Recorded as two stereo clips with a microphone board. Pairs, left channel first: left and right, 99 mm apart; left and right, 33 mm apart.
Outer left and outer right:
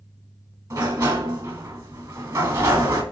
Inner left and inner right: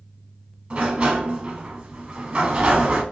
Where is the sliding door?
30° right (ahead or behind), 0.9 m.